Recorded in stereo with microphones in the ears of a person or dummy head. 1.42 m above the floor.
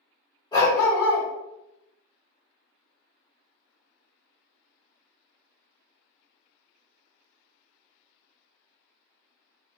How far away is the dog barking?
About 1.7 m.